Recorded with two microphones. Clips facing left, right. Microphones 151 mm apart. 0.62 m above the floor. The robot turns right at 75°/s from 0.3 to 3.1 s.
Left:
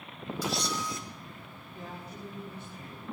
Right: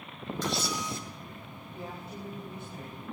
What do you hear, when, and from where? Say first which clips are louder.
0.4 s a camera shutter: even; 170° left, 2.5 m; by 1.0 s 145° right, 2.5 m
1.7 s a woman speaking: right 2 dB; 175° right, 4.5 m; by 3.0 s 80° right, 4.5 m